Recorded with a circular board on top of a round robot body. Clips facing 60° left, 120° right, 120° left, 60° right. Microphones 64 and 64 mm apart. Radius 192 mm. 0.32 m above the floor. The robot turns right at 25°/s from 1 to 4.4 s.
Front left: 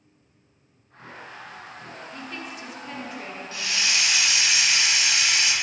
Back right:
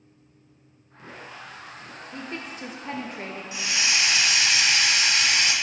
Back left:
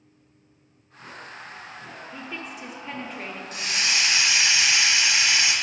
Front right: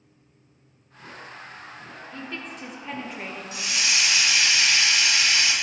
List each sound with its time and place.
2.1 s a woman speaking: 170° right, 1.3 m; by 3.4 s 140° right, 1.3 m
3.5 s a hiss: 165° left, 1.7 m; by 5.5 s 170° right, 1.7 m